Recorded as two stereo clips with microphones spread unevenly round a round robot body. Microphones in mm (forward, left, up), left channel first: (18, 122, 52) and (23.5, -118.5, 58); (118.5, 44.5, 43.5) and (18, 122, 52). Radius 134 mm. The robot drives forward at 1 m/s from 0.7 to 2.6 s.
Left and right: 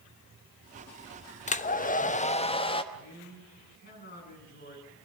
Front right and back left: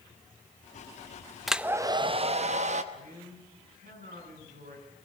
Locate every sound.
1.5 s a hair dryer: 50° left, 0.8 m; by 2.8 s 155° left, 1.1 m
2.9 s a man speaking: 145° left, 7.5 m